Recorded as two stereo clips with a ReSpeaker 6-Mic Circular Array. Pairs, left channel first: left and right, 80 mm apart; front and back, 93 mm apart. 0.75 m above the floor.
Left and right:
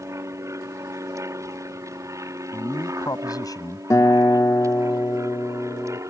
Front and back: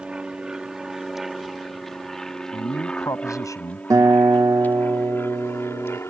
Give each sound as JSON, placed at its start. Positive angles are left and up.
{"t": 0.0, "sound": "an aircraft", "azimuth_deg": -105}
{"t": 2.5, "sound": "a man speaking", "azimuth_deg": 50}
{"t": 3.9, "sound": "a guitar", "azimuth_deg": 130}